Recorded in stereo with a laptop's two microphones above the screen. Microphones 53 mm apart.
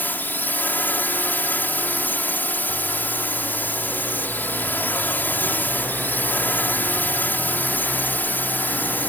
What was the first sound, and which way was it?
A drone, 35° left (ahead or behind).